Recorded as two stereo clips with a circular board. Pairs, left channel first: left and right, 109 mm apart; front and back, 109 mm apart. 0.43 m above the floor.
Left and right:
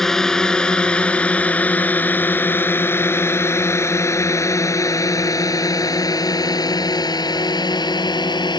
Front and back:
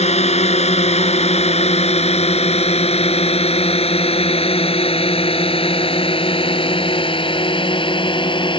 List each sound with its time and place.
0.0 s a drone: 5° left; by 8.6 s 40° left